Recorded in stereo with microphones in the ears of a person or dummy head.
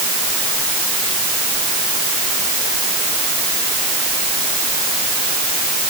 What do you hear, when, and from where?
Only background noise.